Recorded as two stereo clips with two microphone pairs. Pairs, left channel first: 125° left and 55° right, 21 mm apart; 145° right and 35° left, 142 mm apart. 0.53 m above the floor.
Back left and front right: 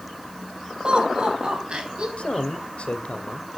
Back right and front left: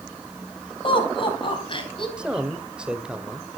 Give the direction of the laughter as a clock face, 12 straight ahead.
3 o'clock.